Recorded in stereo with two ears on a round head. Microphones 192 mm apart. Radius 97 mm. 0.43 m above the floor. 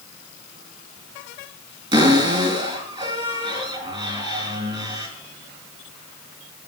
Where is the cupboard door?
20° right (ahead or behind), 3.5 m.